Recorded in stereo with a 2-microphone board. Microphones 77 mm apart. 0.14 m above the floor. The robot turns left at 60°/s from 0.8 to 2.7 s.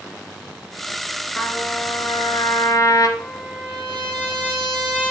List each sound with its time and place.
1.4 s a trumpet: 150° left, 0.8 m; by 3.1 s 70° left, 0.8 m
3.2 s a trumpet: 20° left (ahead or behind), 3 m